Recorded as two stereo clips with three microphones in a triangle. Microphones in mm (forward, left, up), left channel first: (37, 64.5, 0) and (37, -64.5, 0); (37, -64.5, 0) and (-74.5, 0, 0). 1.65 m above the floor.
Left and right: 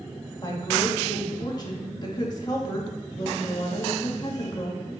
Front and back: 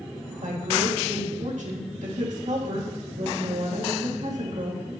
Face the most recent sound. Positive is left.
turn(degrees=145)